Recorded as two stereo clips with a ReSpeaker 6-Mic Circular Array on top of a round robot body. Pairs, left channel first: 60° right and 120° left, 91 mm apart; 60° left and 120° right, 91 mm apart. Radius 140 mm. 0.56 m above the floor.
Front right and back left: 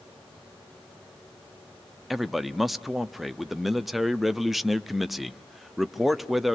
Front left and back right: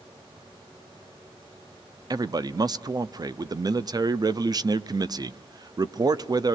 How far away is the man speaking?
About 0.9 m.